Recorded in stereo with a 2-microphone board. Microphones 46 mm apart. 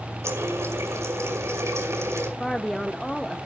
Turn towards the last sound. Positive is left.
turn(degrees=10)  # may be behind; listen again after turning